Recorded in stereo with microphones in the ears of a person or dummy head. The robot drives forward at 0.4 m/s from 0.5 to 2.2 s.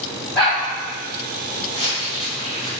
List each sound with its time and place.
0.3 s a dog barking: 5° left (ahead or behind), 1.3 m
1.7 s crumpling: 30° right (ahead or behind), 1.9 m; by 2.7 s 25° right (ahead or behind), 2.0 m